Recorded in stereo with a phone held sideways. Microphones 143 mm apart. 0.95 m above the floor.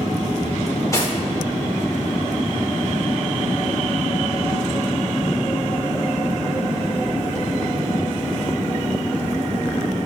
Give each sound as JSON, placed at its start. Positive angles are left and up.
{"t": 0.7, "sound": "cutlery clinking", "side_deg": 25, "distance_m": 1.9}